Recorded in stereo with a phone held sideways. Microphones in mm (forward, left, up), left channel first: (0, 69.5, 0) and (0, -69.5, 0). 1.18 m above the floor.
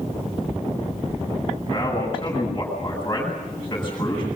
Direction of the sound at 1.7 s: 20° left (ahead or behind).